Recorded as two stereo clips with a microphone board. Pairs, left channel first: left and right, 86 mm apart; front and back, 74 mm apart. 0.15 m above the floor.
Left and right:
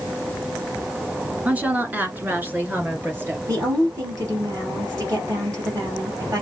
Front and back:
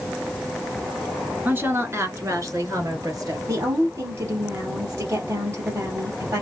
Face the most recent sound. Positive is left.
turn(degrees=-135)